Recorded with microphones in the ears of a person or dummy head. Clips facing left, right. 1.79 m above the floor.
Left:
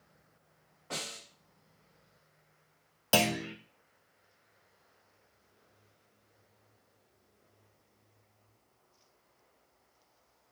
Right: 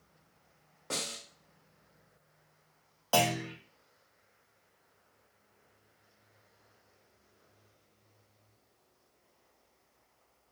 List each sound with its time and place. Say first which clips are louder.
0.9 s a snare drum: right 3 dB; 55° right (ahead or behind), 1.2 m
3.1 s a clunk: even; 30° left (ahead or behind), 0.5 m